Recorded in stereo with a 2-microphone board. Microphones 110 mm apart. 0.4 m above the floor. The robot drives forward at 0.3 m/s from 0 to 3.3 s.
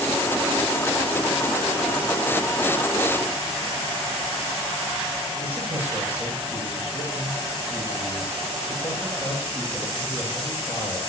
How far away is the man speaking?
About 9.5 m.